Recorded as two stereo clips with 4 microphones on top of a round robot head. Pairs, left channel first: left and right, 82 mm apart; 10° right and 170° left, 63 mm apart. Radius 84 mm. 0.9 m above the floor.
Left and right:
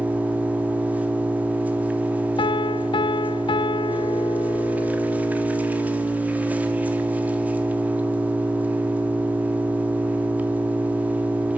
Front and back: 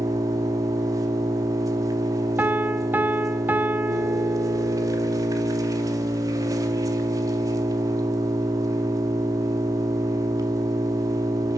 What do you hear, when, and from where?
0.0 s an engine running: 160° right, 2.0 m
2.4 s a piano: 105° left, 0.5 m